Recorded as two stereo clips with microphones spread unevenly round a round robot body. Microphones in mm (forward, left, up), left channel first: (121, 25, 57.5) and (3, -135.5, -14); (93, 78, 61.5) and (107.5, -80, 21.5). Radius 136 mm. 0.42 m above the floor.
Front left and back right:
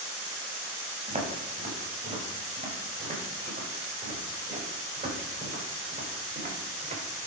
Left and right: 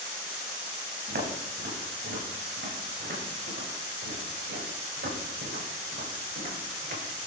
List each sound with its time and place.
1.1 s footsteps: 70° right, 5.5 m; by 7.0 s 80° right, 8.5 m